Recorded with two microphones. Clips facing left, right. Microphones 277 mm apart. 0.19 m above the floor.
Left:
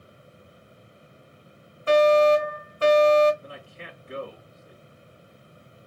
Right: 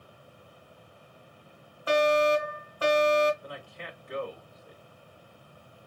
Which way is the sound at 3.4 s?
30° left (ahead or behind).